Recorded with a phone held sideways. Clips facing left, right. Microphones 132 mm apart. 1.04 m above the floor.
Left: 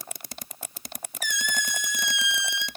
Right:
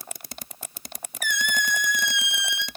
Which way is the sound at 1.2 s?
55° right (ahead or behind).